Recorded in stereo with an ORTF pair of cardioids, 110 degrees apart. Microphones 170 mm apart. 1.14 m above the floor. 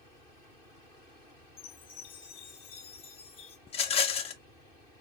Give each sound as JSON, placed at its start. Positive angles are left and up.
{"t": 1.6, "sound": "a chime", "azimuth_deg": 35, "distance_m": 0.9}
{"t": 3.7, "sound": "a rattle", "azimuth_deg": 35, "distance_m": 0.5}